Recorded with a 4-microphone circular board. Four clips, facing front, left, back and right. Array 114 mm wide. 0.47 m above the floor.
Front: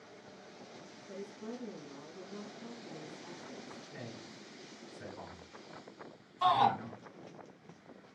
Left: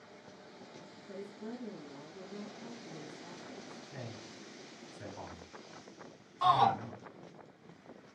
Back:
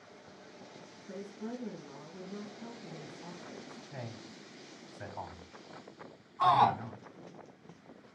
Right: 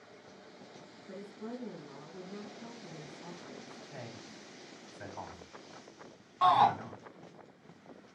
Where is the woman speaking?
150° right, 2 m.